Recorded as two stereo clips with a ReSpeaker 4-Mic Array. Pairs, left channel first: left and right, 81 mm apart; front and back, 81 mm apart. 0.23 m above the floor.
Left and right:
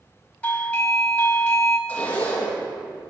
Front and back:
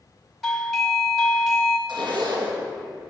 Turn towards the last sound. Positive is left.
turn(degrees=160)